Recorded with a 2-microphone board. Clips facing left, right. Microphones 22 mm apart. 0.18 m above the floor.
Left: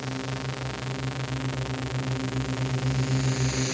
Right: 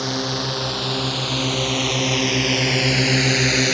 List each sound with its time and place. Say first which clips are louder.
0.0 s a drone: right 10 dB; 60° right (ahead or behind); by 3.8 s 50° right (ahead or behind)